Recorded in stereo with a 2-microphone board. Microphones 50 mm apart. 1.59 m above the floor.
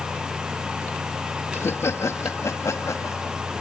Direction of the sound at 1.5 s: 55° left (ahead or behind).